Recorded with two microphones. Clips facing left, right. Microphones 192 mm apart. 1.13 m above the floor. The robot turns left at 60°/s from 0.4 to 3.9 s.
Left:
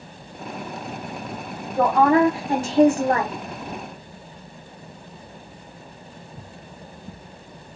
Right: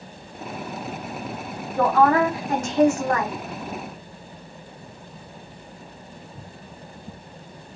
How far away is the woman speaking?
About 0.7 m.